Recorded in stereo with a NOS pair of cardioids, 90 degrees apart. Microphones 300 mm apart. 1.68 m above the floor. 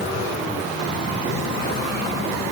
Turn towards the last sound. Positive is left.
No sound to turn to.